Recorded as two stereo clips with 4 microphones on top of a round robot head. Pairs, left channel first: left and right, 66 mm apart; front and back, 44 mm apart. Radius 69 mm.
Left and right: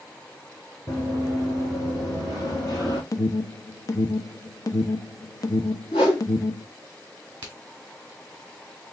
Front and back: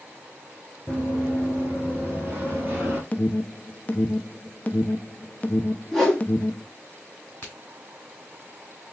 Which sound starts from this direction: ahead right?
A crack, at 7.4 s.